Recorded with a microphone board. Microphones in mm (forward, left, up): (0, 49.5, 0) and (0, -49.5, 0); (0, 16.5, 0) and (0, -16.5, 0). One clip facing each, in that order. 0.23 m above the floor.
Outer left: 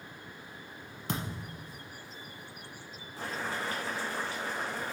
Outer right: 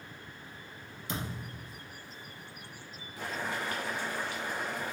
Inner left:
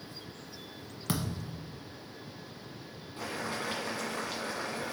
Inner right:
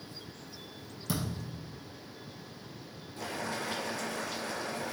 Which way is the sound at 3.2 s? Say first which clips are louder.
Even, even; 30° left (ahead or behind).